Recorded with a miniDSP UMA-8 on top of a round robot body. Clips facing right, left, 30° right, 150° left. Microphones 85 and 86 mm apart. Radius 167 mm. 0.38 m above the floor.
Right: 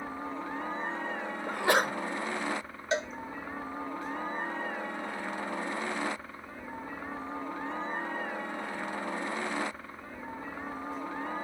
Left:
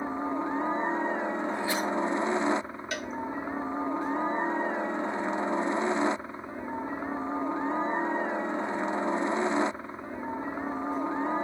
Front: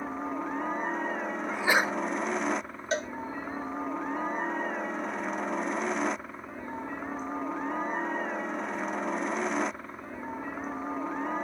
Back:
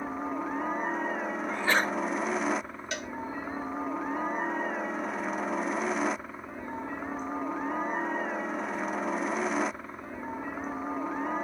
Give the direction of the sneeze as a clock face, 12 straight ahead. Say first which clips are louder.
Right 2 dB, front 1 dB; 4 o'clock.